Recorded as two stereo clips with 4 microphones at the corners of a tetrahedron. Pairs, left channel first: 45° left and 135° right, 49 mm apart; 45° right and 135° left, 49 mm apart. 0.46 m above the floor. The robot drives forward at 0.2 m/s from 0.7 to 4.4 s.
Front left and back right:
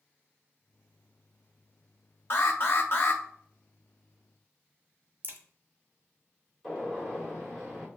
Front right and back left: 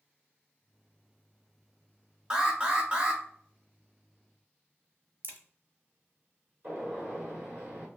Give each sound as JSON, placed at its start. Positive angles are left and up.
{"t": 2.3, "sound": "an alarm", "azimuth_deg": 65, "distance_m": 1.2}
{"t": 5.2, "sound": "a crack", "azimuth_deg": 175, "distance_m": 0.9}
{"t": 6.6, "sound": "a gunshot", "azimuth_deg": 130, "distance_m": 1.9}